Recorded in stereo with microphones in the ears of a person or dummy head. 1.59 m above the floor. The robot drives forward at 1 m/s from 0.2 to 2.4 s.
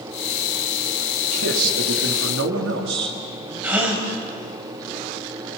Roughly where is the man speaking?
Right.